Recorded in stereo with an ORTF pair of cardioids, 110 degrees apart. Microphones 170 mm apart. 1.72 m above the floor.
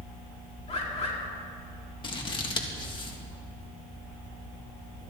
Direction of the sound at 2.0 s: 30° left.